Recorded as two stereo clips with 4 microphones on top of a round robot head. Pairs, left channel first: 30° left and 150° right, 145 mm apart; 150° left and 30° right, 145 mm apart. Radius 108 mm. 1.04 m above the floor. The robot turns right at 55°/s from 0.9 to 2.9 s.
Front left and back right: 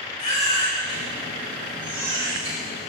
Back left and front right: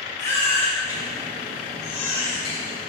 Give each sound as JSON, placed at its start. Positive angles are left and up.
{"t": 0.2, "sound": "a baby crying", "azimuth_deg": 80, "distance_m": 4.5}